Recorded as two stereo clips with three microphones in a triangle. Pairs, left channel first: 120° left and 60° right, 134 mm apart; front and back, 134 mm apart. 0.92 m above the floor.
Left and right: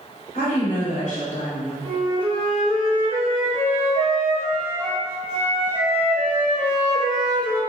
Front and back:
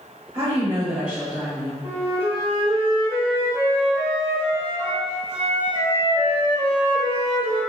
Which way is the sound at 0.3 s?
135° left.